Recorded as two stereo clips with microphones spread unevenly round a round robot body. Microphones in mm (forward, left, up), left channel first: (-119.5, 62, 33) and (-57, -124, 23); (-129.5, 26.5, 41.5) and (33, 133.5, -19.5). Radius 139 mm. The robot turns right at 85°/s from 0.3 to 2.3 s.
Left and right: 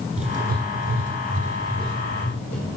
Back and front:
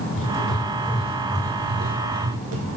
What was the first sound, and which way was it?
Writing, 130° right.